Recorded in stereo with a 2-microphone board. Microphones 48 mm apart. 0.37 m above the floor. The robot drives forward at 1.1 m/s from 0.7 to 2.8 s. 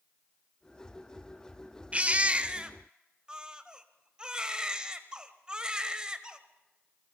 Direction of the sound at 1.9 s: 25° right (ahead or behind).